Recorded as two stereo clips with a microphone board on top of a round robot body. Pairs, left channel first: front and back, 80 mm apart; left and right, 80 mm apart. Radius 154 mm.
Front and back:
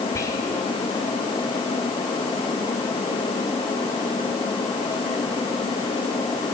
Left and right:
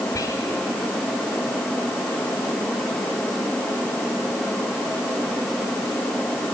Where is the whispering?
50° left, 2 m.